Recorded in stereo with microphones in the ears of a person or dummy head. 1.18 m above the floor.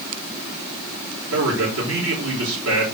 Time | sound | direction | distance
1.3 | a man speaking | 75° right (ahead or behind) | 3.5 m